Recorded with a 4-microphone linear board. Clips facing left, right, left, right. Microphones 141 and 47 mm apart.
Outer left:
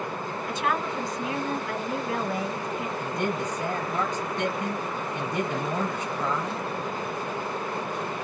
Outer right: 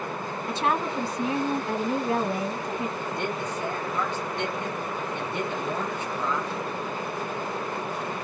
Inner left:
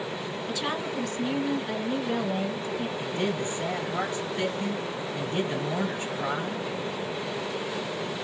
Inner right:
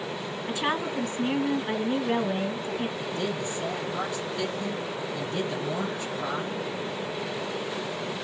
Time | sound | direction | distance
0.5 | a woman speaking | 30° right (ahead or behind) | 2 m
3.0 | a man speaking | 45° left (ahead or behind) | 2.5 m